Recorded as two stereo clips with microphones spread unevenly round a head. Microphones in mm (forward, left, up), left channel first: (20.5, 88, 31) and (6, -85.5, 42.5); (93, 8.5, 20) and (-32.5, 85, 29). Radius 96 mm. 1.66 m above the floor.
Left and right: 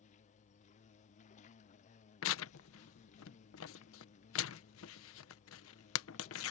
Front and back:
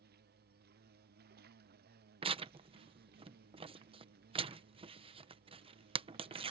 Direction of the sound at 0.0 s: 135° left.